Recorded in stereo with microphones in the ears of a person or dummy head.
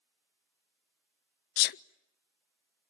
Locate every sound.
1.6 s a sneeze: 60° left (ahead or behind), 0.6 m